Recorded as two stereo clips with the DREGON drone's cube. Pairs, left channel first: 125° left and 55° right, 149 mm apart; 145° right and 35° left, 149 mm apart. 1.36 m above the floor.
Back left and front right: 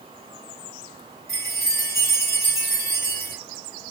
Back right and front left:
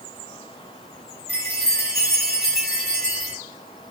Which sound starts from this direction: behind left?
A chime, at 1.3 s.